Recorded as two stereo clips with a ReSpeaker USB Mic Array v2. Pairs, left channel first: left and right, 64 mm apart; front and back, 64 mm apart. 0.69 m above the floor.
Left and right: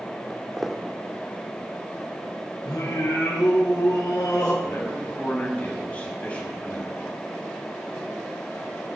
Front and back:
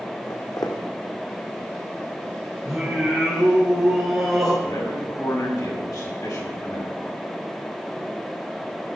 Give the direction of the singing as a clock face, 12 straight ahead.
9 o'clock.